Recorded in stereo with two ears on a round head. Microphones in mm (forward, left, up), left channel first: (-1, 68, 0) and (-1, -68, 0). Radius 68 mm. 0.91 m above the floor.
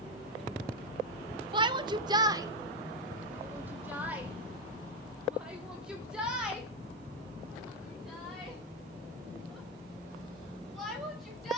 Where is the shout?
30° right (ahead or behind), 0.7 m; by 11.6 s centre (ahead or behind), 6 m.